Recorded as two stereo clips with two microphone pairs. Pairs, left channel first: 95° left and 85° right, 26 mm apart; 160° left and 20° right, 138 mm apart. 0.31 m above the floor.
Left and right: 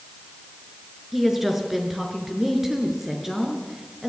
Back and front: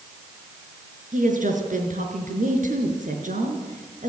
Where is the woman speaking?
Straight ahead, 4 m.